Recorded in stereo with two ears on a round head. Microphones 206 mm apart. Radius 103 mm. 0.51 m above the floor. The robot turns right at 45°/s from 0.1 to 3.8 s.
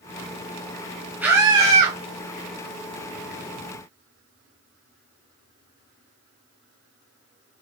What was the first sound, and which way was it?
A scream, 175° right.